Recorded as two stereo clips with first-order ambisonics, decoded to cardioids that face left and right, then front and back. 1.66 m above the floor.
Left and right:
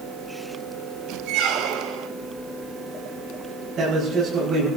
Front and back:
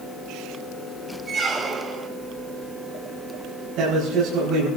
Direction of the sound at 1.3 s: 115° right.